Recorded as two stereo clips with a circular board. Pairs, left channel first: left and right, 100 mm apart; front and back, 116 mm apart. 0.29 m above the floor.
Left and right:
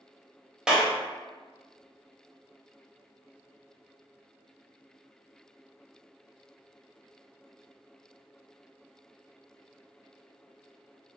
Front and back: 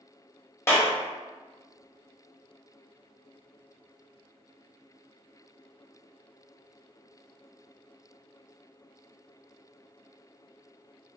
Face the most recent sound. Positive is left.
turn(degrees=-15)